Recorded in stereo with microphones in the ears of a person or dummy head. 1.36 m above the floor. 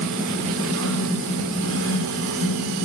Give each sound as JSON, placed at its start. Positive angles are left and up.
{"t": 0.0, "sound": "a fan", "side_deg": -65, "distance_m": 1.9}